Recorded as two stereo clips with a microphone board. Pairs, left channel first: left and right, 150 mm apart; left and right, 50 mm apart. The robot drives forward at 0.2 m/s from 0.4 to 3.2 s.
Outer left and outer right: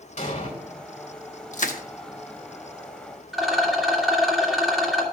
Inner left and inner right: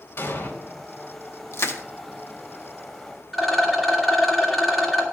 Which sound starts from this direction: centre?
A rattle, at 3.3 s.